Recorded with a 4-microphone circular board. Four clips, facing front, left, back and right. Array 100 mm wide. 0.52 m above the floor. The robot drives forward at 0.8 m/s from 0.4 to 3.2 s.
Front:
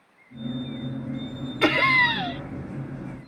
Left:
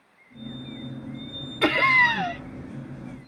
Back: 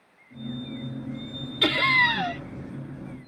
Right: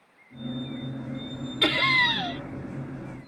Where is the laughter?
35° left; by 2.4 s 140° left.